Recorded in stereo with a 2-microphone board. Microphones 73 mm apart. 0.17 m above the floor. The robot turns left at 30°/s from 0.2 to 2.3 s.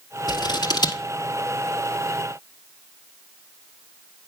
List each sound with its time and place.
0.3 s scissors: 70° left (ahead or behind), 1.7 m